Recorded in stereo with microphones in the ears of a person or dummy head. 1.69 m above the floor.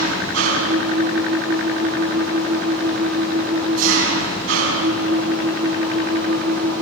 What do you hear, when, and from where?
0.0 s an engine running: 75° right (ahead or behind), 9 m